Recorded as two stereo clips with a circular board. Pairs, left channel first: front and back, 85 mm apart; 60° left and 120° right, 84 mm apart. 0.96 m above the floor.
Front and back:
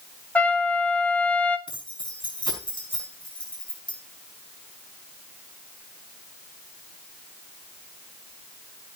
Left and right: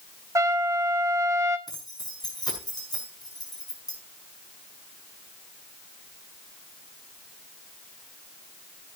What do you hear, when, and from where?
0.3 s a trumpet: 70° right, 1.9 m
1.7 s keys jangling: 20° left, 6 m